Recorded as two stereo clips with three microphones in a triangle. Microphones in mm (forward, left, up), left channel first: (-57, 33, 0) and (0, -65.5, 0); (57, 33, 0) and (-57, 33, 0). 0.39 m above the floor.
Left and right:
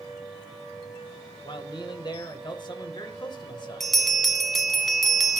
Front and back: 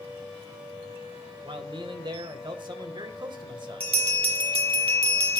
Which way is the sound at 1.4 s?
150° left.